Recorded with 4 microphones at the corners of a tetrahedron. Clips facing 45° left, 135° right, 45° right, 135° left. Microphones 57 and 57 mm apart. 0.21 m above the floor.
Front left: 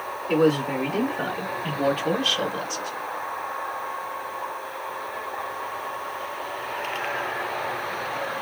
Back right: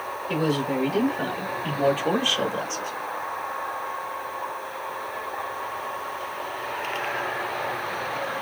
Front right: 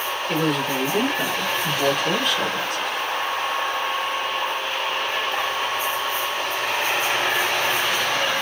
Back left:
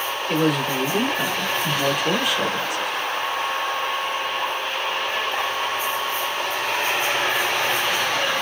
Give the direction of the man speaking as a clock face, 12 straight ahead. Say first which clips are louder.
Front left 4 dB, back left 2 dB; 10 o'clock.